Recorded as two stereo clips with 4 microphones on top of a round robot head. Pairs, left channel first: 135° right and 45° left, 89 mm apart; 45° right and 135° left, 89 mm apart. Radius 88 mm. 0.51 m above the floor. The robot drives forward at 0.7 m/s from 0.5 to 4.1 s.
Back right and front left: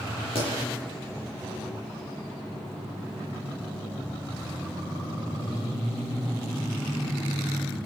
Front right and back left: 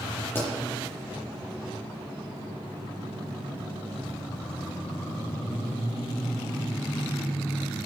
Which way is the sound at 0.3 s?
110° right.